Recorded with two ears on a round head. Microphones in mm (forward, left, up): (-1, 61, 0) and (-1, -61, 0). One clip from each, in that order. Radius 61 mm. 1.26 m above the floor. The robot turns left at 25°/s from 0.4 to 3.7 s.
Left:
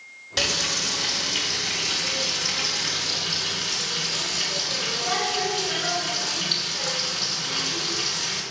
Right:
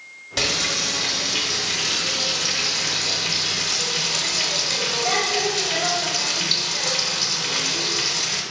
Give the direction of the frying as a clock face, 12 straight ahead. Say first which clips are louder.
Right 2 dB; 12 o'clock.